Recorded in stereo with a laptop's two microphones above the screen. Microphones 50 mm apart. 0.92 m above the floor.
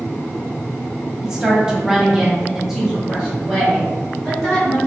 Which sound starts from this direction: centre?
A woman speaking, at 1.2 s.